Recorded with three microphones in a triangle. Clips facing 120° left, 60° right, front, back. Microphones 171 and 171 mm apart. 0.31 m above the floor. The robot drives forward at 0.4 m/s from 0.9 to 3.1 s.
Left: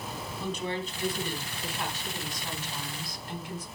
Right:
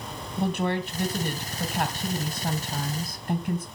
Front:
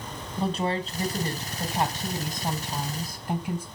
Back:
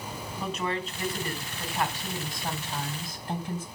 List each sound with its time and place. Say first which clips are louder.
0.4 s a woman speaking: right 7 dB, front 5 dB; 55° right, 2.5 m; by 3.7 s 75° right, 2 m